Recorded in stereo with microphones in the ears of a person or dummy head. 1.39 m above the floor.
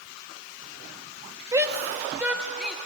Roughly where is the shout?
Centre.